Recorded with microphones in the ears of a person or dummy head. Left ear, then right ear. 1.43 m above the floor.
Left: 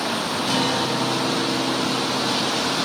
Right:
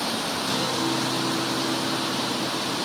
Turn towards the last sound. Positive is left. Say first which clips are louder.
# left 4 dB
turn(degrees=40)  # may be behind; listen again after turning